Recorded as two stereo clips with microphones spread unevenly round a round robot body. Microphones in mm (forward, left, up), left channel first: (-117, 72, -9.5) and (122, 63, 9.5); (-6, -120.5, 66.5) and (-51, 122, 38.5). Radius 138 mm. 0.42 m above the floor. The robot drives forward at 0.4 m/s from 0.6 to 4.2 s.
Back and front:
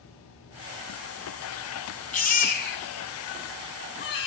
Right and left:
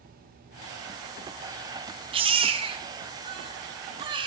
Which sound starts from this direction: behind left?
A baby crying, at 2.1 s.